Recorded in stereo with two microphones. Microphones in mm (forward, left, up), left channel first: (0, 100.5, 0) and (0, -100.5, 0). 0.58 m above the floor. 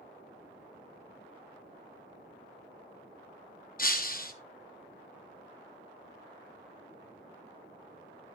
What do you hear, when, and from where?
3.8 s breaking glass: 45° left (ahead or behind), 0.9 m